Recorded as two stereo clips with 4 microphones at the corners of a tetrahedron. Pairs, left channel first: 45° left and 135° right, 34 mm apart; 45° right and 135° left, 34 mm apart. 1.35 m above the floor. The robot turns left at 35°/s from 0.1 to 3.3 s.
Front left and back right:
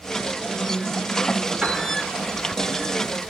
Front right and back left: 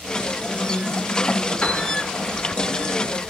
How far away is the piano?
About 2 m.